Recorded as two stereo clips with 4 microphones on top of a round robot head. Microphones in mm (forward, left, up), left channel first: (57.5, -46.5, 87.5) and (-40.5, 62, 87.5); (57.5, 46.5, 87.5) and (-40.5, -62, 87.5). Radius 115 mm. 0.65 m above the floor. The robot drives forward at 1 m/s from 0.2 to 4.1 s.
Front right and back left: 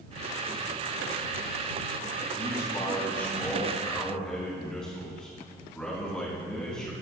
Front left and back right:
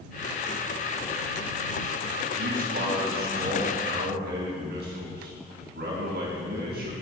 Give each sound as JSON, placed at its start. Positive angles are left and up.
{"t": 2.4, "sound": "a man speaking", "azimuth_deg": -105, "distance_m": 3.5}